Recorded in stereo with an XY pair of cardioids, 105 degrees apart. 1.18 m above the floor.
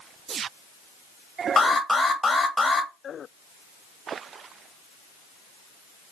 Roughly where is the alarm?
Ahead.